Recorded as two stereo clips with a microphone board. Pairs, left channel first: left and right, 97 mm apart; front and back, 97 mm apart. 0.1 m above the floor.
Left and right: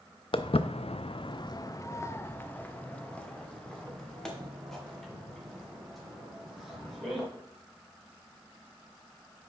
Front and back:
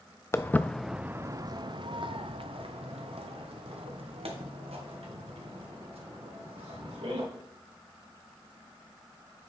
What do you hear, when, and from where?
0.3 s footsteps: 60° left, 0.6 m; by 7.2 s straight behind, 3.5 m